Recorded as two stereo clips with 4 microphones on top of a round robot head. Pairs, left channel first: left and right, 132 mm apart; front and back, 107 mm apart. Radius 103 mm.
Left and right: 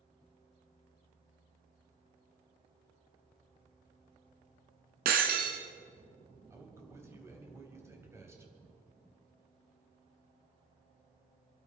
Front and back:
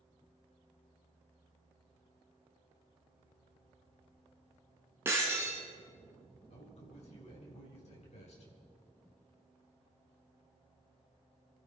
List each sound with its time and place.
5.0 s breaking glass: 105° right, 1.9 m
6.5 s a man speaking: 20° right, 3.5 m